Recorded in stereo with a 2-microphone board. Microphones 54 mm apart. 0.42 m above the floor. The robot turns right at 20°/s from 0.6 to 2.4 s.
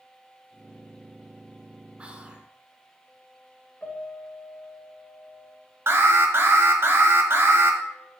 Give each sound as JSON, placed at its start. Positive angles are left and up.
{"t": 2.0, "sound": "whispering", "side_deg": -25, "distance_m": 1.3}
{"t": 3.8, "sound": "a piano", "side_deg": 30, "distance_m": 1.7}
{"t": 5.9, "sound": "an alarm", "side_deg": -55, "distance_m": 1.5}